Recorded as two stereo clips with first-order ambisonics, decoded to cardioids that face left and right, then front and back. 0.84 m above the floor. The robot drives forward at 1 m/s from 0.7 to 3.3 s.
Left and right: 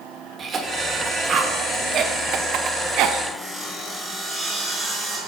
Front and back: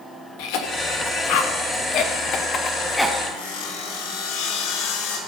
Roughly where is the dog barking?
No dog barking in this recording.